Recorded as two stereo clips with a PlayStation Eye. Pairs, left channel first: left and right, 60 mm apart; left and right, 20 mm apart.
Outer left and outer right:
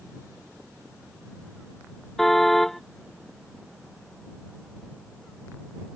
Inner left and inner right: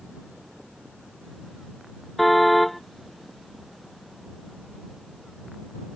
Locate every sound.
2.2 s a car horn: 5° left (ahead or behind)